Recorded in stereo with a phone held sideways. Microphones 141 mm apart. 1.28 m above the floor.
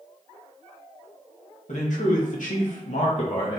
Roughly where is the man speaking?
Left.